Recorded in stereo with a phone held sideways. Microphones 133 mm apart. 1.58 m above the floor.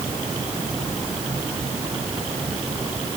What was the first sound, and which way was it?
Only background noise.